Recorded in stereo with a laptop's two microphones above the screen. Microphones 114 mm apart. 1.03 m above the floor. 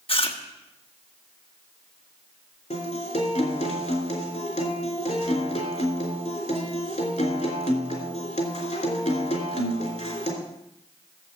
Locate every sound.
0.1 s chewing: 55° left (ahead or behind), 1.2 m
2.7 s a guitar: 75° left (ahead or behind), 3.5 m